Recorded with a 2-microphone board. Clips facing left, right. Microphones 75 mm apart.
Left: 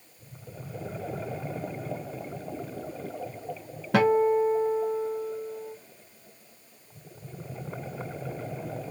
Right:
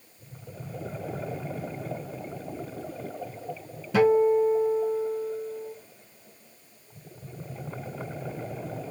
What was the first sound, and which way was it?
A guitar, 55° left (ahead or behind).